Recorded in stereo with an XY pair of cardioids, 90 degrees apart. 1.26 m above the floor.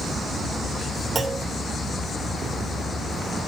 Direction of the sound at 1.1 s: 35° right.